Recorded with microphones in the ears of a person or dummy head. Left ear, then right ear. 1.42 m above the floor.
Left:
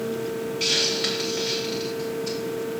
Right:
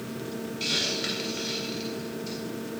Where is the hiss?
15° left (ahead or behind), 2 m.